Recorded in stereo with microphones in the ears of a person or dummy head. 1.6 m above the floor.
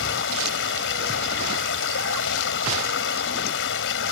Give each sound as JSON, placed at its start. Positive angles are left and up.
{"t": 0.0, "sound": "running water", "side_deg": 70}